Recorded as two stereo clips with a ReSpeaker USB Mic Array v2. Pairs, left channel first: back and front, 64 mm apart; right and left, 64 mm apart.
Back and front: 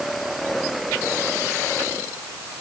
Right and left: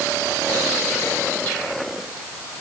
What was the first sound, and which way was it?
Only background noise.